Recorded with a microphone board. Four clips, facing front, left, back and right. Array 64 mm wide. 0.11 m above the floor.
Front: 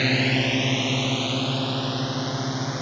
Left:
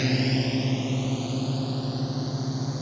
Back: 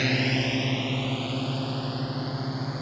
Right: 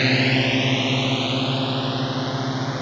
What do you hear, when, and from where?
0.0 s a drone: 75° right; by 2.8 s 70° right